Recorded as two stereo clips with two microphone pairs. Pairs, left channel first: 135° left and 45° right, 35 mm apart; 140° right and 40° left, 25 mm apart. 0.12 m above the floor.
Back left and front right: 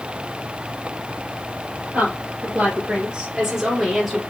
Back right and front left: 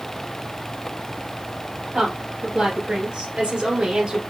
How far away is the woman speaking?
About 2 m.